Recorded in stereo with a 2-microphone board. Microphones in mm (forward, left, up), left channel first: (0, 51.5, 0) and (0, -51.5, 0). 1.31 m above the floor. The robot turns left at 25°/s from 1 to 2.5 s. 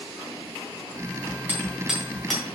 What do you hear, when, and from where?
1.5 s hammering: 20° right (ahead or behind), 3 m; by 2.4 s 5° left (ahead or behind), 3 m